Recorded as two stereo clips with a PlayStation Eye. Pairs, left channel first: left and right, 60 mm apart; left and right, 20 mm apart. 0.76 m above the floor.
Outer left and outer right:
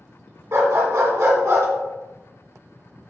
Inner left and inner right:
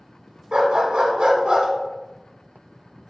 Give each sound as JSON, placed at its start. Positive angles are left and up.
{"t": 0.5, "sound": "a dog barking", "side_deg": -55, "distance_m": 1.1}